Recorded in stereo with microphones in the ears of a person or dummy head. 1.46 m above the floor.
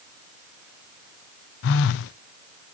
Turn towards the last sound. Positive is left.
turn(degrees=65)  # may be behind; listen again after turning